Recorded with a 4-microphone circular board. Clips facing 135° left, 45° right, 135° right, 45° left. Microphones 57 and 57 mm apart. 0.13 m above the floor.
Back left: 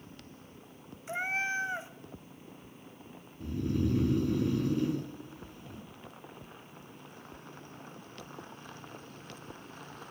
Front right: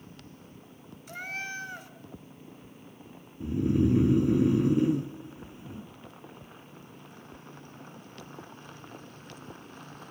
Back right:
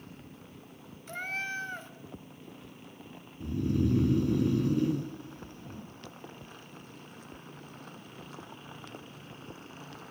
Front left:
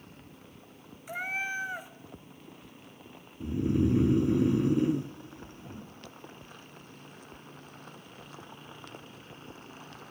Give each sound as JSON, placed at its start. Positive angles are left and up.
{"t": 1.1, "sound": "a cat meowing", "azimuth_deg": 110, "distance_m": 0.5}
{"t": 3.4, "sound": "snoring", "azimuth_deg": 0, "distance_m": 1.0}